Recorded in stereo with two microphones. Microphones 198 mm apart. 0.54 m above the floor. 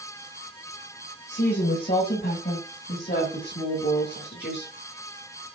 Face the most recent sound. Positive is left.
turn(degrees=60)  # may be behind; listen again after turning